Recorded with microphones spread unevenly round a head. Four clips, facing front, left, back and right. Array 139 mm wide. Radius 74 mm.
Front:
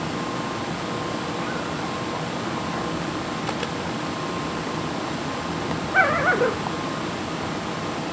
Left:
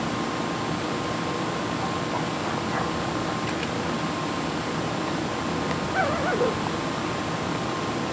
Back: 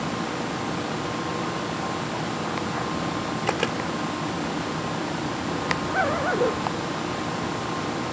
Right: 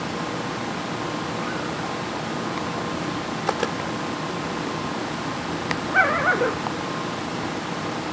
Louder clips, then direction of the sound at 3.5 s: Right 4 dB, back 2 dB; 130° right.